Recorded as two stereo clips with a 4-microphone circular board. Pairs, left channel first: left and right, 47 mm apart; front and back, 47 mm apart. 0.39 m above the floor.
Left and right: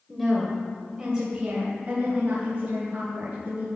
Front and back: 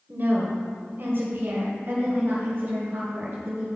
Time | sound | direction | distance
0.1 | a woman speaking | straight behind | 1.9 m